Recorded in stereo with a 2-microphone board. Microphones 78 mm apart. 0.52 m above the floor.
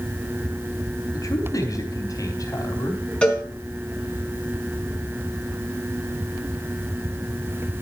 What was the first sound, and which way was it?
A man speaking, 50° left (ahead or behind).